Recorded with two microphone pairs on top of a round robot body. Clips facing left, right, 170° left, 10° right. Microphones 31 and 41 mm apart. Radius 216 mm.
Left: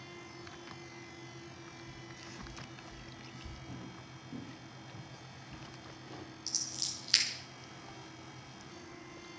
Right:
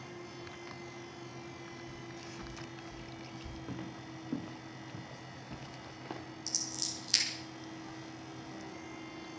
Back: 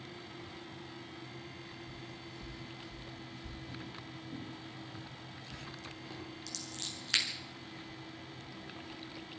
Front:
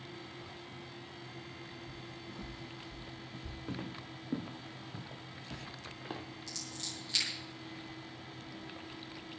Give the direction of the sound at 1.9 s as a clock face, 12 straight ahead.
12 o'clock.